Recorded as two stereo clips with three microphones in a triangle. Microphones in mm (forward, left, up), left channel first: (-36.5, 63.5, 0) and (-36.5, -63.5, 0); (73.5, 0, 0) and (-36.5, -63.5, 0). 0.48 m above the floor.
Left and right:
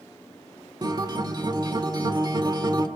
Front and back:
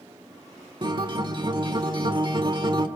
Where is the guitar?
125° right, 1.7 m.